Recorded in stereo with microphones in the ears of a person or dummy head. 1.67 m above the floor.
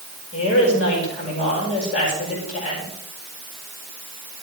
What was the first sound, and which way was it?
A woman speaking, 35° left (ahead or behind).